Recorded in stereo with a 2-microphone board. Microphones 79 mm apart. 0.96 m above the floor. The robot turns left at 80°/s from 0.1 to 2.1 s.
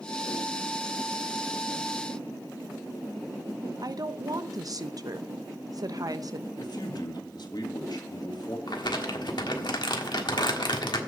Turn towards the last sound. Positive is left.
turn(degrees=70)  # may be behind; listen again after turning